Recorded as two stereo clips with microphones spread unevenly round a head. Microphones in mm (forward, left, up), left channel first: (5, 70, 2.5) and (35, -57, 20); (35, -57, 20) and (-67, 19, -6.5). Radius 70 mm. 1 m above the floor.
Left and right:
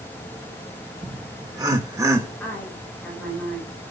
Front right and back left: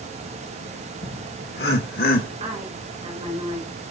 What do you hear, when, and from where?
1.0 s laughter: 15° right, 3 m; by 2.3 s 10° right, 2.5 m
2.4 s a woman speaking: 170° right, 3.5 m